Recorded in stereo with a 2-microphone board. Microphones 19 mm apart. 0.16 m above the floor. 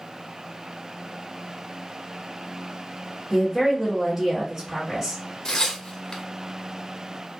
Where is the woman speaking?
20° right (ahead or behind), 1.5 m.